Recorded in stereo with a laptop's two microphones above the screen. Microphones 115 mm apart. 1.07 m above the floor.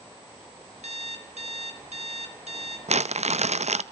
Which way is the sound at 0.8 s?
70° right (ahead or behind).